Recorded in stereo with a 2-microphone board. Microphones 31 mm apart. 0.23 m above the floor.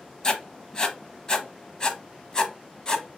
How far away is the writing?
About 0.7 m.